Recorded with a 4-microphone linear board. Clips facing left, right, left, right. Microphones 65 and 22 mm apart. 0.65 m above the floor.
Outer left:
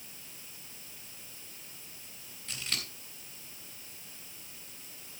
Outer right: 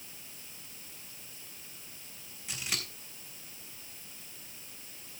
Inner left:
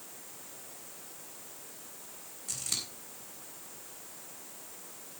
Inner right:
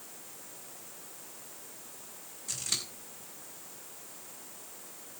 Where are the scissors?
10° right (ahead or behind), 3.5 m.